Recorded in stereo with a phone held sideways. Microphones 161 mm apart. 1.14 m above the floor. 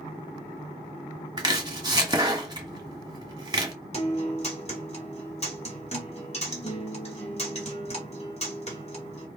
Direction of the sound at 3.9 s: 40° left (ahead or behind).